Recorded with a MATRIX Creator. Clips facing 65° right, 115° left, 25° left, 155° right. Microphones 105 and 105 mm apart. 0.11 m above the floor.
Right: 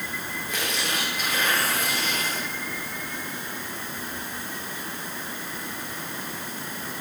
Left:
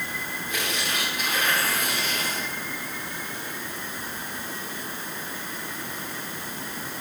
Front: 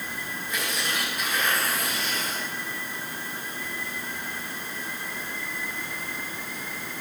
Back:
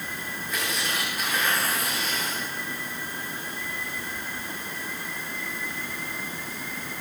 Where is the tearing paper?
70° right, 9 m.